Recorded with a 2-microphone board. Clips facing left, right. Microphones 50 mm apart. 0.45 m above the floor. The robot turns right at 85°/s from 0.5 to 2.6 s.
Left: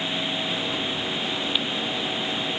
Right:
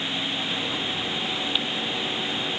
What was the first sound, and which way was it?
Only background noise.